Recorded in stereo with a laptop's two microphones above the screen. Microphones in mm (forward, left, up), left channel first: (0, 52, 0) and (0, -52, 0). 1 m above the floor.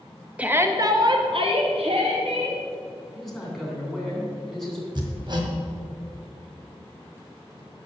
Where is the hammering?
50° right (ahead or behind), 1.5 m.